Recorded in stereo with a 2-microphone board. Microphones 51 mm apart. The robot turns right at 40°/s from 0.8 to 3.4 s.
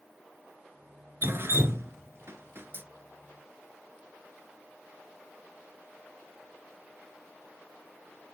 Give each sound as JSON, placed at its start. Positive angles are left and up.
{"t": 1.2, "sound": "dripping", "side_deg": -45, "distance_m": 1.1}